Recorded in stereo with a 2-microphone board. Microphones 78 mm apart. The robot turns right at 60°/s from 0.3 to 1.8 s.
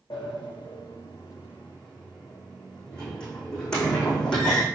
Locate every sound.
0.1 s a sliding door: 80° left, 6 m; by 4.7 s 10° left (ahead or behind), 6 m